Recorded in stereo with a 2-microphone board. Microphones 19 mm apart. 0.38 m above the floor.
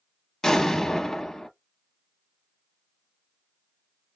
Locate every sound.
0.4 s an explosion: 30° left (ahead or behind), 0.7 m